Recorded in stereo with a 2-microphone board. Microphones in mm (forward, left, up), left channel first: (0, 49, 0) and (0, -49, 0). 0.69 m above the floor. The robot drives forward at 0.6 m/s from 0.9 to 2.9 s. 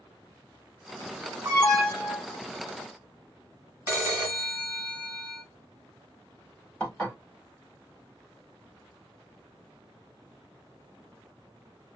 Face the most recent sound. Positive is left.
turn(degrees=10)  # may be behind; listen again after turning